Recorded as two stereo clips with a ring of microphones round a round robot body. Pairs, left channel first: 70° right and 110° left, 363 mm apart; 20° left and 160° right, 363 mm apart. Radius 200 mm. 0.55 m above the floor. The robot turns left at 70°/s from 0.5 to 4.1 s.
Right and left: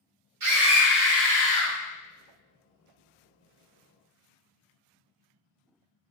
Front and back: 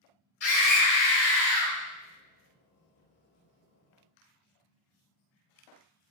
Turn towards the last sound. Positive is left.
turn(degrees=165)